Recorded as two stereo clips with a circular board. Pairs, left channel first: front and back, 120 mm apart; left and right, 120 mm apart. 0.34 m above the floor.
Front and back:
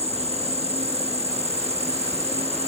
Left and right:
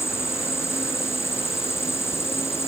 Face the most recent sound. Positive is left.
turn(degrees=155)